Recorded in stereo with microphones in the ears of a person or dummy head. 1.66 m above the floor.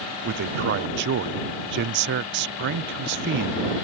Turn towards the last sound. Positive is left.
turn(degrees=-60)  # may be behind; listen again after turning